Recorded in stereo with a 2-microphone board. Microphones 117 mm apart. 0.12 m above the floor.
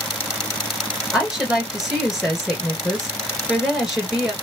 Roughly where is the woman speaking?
Centre.